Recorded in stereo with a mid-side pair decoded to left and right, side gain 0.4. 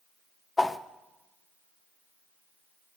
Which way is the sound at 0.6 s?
25° left.